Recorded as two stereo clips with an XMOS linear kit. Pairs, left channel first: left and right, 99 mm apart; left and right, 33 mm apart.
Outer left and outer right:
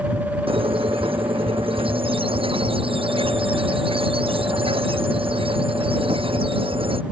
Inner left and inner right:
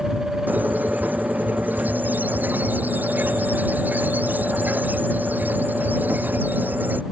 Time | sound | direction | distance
0.5 | a squeak | 70° right (ahead or behind) | ?